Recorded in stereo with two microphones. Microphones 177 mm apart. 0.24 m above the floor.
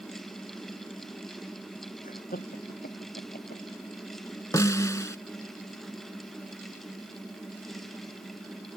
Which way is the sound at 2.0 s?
50° left (ahead or behind).